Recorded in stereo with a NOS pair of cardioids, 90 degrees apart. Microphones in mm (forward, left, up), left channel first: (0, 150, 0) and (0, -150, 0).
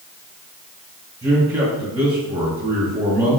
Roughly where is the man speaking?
Ahead.